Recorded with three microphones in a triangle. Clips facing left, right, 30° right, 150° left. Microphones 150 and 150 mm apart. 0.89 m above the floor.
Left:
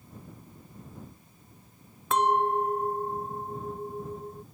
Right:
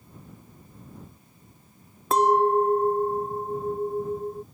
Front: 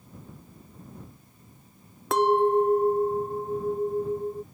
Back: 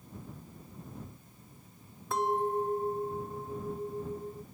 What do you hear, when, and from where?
2.1 s a clink: 35° right